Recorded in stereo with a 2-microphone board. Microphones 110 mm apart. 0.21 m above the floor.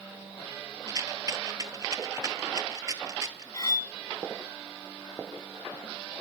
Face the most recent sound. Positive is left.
turn(degrees=35)  # may be behind; listen again after turning